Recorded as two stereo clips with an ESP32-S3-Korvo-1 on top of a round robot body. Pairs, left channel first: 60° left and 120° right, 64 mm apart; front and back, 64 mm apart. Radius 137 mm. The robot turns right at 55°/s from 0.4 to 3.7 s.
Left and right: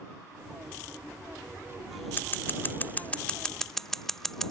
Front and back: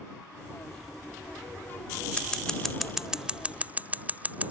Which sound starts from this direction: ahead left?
Scissors, at 2.2 s.